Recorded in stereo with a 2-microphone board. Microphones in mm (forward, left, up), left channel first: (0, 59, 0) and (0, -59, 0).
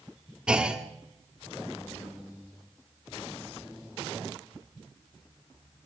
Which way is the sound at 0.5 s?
10° right (ahead or behind).